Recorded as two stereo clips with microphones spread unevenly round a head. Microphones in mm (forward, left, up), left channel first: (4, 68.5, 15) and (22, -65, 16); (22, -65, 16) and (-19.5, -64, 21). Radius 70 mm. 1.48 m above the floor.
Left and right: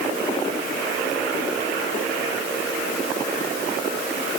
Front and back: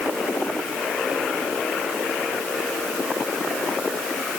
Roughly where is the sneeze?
No sneeze in this recording.